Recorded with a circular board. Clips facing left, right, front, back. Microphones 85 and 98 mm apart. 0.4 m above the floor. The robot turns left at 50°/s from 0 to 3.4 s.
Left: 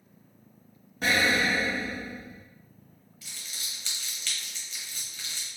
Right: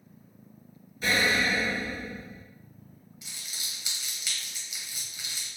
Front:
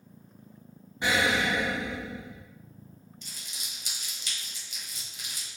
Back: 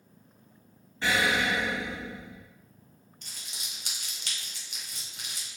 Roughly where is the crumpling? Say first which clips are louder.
Left 1 dB, back 2 dB; behind right.